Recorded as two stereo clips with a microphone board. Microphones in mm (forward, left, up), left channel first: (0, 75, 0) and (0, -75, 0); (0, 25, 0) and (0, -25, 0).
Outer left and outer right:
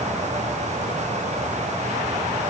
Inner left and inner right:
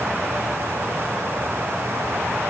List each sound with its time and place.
Only background noise.